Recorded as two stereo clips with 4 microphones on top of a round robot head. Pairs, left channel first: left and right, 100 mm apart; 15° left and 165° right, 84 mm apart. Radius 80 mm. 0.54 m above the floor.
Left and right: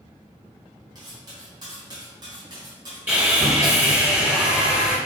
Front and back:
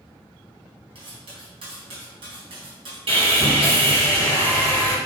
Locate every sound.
0.9 s cutlery clinking: 145° right, 3 m
3.1 s sawing: 165° right, 3.5 m